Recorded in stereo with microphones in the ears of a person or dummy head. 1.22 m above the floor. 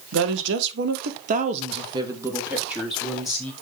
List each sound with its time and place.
0.1 s a woman speaking: 85° right, 1.3 m; by 3.5 s 5° left (ahead or behind), 2.0 m